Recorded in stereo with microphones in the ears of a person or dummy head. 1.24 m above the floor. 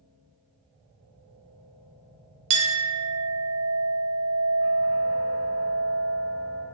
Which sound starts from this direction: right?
A clink, at 2.5 s.